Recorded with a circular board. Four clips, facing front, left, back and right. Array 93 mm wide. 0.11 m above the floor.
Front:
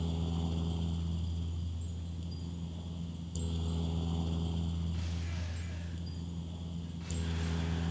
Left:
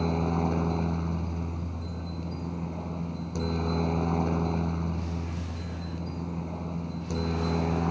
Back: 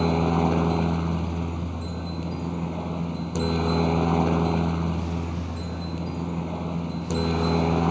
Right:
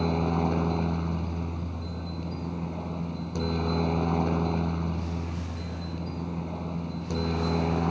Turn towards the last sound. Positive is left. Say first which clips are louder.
# right 1 dB, back 16 dB
turn(degrees=-175)